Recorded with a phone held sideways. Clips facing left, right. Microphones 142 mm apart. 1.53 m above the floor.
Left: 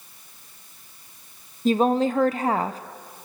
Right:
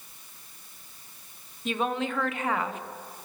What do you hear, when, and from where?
1.6 s a woman speaking: 35° left (ahead or behind), 1.1 m